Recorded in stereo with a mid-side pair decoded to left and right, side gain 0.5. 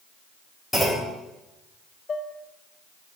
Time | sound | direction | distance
0.7 | a clunk | 10° left | 3.5 m
2.1 | dishes clattering | 40° left | 0.9 m